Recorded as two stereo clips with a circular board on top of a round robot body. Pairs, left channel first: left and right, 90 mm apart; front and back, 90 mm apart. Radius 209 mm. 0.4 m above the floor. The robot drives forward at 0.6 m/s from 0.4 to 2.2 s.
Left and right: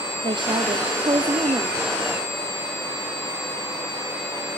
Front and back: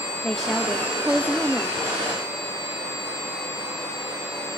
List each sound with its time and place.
0.2 s a woman speaking: 85° right, 1.8 m; by 1.8 s 120° right, 1.9 m